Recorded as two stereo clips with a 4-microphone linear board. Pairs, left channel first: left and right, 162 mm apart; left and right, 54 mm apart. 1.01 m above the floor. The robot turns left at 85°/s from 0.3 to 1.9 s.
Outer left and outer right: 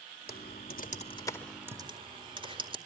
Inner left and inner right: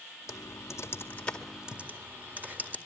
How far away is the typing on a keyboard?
About 2 m.